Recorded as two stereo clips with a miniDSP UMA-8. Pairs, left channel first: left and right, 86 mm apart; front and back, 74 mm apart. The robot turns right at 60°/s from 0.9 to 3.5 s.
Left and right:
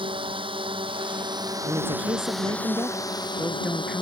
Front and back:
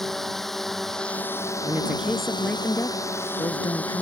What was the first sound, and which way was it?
A drone, 85° right.